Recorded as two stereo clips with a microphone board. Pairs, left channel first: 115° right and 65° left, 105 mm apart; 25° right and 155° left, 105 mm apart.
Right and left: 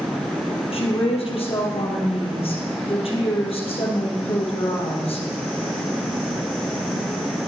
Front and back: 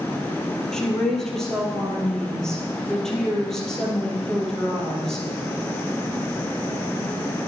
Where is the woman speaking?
105° right, 3 m.